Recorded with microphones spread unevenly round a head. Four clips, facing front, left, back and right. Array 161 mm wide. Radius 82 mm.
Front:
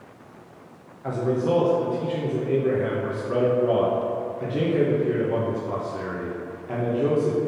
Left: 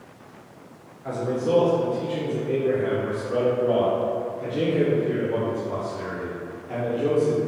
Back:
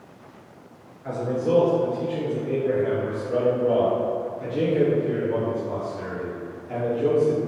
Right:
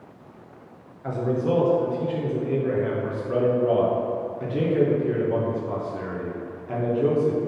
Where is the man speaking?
20° right, 1.7 m.